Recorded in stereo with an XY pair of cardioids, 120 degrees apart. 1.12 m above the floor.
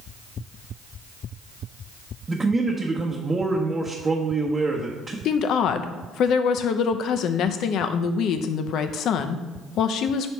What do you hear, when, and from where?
2.3 s a man speaking: 20° right, 0.9 m
5.2 s a woman speaking: 65° left, 0.6 m